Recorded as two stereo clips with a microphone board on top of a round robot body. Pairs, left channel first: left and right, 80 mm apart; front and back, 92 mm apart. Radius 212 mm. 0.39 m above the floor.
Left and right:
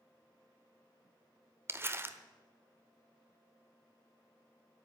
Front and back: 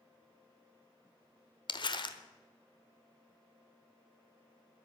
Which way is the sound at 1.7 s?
30° right.